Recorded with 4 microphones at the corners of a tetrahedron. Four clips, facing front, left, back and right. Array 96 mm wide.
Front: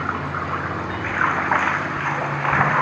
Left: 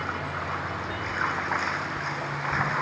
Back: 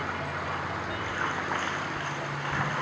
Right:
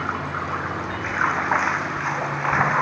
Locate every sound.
0.0 s running water: 35° right